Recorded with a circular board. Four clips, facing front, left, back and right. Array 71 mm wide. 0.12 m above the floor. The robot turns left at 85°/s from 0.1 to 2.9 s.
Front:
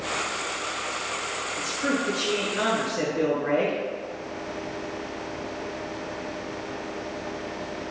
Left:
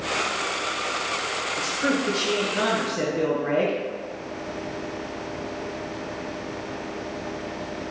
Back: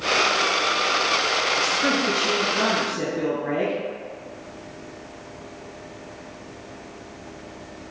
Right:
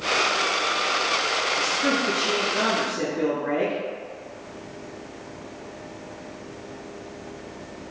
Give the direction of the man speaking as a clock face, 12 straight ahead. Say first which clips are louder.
Left 2 dB, back 4 dB; 7 o'clock.